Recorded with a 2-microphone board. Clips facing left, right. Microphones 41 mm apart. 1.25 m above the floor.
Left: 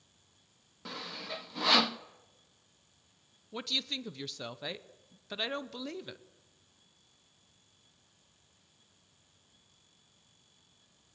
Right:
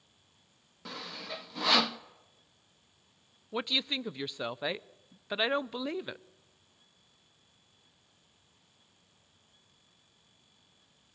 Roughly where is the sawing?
Centre.